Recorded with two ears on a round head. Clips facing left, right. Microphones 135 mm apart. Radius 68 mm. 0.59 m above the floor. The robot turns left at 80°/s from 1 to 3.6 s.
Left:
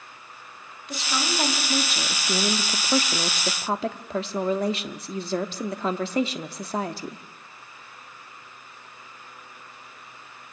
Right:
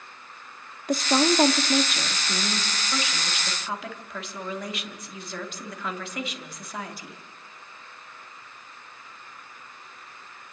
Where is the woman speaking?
105° right, 1.4 m; by 7.2 s 50° left, 1.4 m.